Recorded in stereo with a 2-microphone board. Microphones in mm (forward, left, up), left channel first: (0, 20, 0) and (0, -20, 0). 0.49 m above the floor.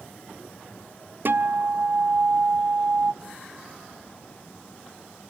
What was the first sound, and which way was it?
A guitar, 60° right (ahead or behind).